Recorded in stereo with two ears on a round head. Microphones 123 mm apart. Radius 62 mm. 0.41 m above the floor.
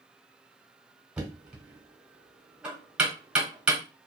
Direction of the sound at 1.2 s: 5° right (ahead or behind).